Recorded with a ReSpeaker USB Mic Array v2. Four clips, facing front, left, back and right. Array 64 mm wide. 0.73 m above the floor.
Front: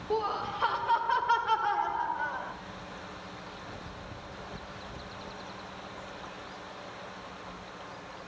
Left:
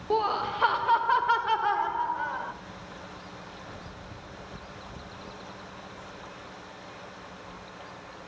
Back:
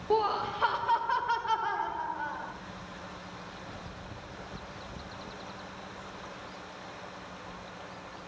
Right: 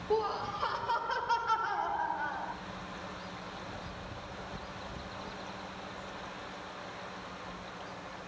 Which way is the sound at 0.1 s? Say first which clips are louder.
Left 5 dB, back 3 dB; 120° left.